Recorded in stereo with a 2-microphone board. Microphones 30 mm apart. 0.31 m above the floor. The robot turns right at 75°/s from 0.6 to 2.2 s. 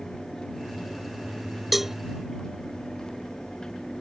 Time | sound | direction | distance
1.7 | a cowbell | 5° right (ahead or behind) | ?